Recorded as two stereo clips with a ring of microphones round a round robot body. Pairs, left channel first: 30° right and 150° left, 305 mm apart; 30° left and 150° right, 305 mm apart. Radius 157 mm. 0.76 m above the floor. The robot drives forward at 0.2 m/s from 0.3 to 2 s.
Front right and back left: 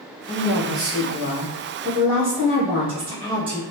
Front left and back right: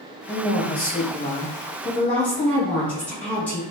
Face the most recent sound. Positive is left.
turn(degrees=110)